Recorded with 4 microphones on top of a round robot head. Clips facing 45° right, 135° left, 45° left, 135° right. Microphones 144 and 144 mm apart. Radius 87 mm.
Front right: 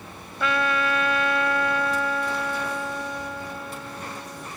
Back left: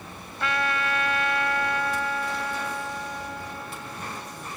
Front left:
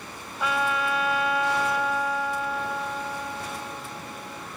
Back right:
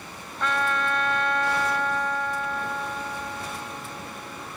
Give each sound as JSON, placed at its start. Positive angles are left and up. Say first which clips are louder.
{"t": 0.4, "sound": "a trumpet", "louder": "front right 3 dB, even", "azimuth_deg": -40}